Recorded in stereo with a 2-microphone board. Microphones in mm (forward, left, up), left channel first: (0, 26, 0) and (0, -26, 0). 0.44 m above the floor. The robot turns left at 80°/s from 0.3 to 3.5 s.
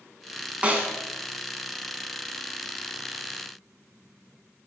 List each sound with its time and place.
0.6 s a snare drum: 25° right (ahead or behind), 0.9 m; by 0.9 s 45° right (ahead or behind), 0.9 m